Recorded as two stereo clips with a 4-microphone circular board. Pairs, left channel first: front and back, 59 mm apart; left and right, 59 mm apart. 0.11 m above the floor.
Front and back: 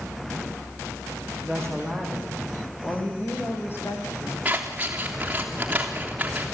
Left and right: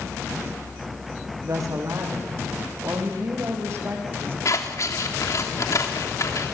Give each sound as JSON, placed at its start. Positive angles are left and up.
{"t": 1.4, "sound": "a woman speaking", "azimuth_deg": -80, "distance_m": 6.0}
{"t": 4.5, "sound": "scissors", "azimuth_deg": 115, "distance_m": 3.0}